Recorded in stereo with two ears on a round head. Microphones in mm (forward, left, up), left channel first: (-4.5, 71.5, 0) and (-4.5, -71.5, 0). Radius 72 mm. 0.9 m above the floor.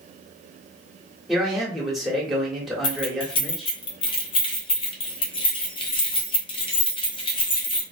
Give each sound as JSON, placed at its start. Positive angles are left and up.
{"t": 1.3, "sound": "a man speaking", "side_deg": 0, "distance_m": 1.1}
{"t": 2.8, "sound": "keys jangling", "side_deg": 30, "distance_m": 0.6}